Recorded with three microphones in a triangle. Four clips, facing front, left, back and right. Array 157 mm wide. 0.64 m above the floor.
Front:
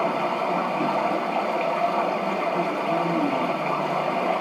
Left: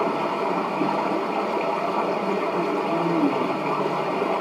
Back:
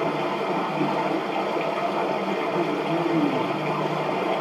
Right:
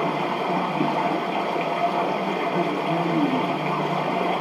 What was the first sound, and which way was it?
Running water, 95° right.